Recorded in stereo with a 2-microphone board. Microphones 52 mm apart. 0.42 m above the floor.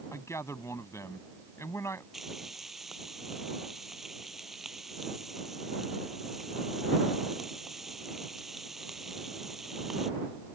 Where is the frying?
5° right (ahead or behind).